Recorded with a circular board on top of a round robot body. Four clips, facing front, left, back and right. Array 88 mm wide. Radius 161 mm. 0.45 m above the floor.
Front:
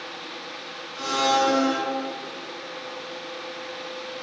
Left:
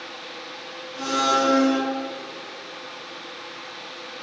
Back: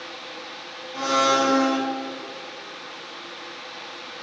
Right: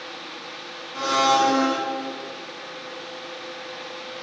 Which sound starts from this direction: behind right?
A blender, at 0.9 s.